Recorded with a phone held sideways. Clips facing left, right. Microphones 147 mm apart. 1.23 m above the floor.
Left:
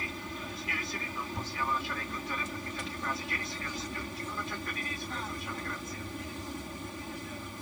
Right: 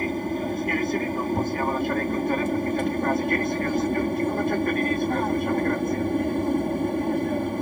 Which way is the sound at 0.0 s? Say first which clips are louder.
Right 15 dB; 55° right (ahead or behind).